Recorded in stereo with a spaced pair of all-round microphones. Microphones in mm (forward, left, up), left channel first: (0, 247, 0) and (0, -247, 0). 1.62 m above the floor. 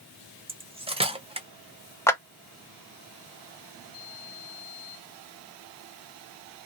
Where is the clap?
5° left (ahead or behind), 0.7 m.